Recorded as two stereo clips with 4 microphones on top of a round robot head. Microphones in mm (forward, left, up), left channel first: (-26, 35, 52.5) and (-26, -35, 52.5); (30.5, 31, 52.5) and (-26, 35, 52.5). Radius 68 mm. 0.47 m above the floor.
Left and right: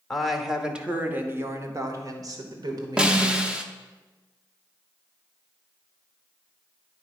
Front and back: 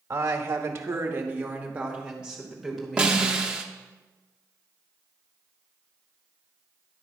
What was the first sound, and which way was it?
A woman speaking, 175° left.